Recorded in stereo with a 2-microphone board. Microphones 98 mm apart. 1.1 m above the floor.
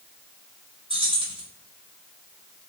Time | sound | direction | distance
0.9 | keys jangling | 70° right (ahead or behind) | 1.9 m